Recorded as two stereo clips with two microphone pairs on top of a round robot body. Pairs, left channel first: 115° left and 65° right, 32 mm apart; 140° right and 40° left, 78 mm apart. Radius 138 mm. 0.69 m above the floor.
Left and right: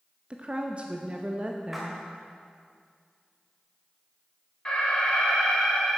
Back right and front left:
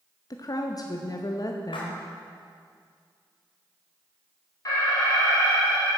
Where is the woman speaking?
115° right, 0.9 m.